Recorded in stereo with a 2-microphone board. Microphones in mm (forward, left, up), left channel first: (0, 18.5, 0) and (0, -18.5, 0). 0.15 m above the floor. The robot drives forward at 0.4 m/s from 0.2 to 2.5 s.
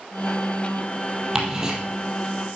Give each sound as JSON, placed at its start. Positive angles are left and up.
{"t": 1.4, "sound": "ticking", "side_deg": -15, "distance_m": 3.0}